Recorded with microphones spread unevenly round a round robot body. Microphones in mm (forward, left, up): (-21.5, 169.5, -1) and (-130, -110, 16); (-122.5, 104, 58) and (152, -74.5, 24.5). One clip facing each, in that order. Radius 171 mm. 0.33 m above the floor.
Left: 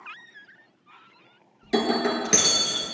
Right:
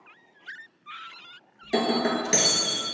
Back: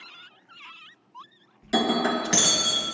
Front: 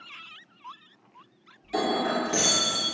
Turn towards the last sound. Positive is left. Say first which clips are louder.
# left 1 dB, back 3 dB
turn(degrees=140)